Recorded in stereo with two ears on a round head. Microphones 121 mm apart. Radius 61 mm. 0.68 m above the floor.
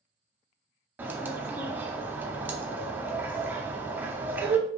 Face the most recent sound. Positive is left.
turn(degrees=-15)  # may be behind; listen again after turning